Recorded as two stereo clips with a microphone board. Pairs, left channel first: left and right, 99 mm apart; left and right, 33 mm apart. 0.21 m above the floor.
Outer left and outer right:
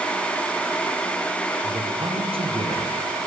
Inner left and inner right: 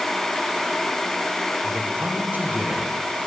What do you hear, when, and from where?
1.6 s a man speaking: 65° right (ahead or behind), 6 m